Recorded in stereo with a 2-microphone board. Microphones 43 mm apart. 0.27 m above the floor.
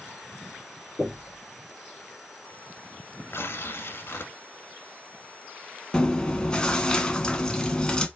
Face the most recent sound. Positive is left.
turn(degrees=20)  # may be behind; listen again after turning